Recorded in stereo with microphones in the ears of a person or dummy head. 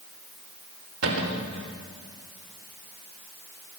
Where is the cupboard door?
85° right, 4 m.